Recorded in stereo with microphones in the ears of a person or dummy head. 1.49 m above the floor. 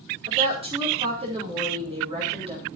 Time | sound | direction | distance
0.3 | a woman speaking | 30° right (ahead or behind) | 5 m